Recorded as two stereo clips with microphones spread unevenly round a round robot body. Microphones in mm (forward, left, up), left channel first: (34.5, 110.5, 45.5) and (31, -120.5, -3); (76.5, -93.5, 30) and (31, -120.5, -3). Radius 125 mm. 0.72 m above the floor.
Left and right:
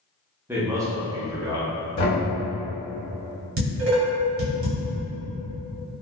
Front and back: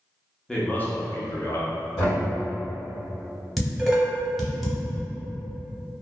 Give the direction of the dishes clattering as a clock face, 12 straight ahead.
3 o'clock.